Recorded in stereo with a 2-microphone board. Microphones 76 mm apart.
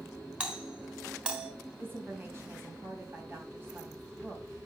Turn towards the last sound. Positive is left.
turn(degrees=-30)  # may be behind; listen again after turning